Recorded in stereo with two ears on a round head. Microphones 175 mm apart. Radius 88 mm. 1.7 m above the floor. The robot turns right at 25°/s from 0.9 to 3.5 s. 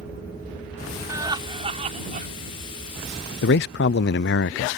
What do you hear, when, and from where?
1.1 s laughter: 15° right (ahead or behind); by 2.3 s 45° right (ahead or behind)
3.4 s a man speaking: 55° left (ahead or behind)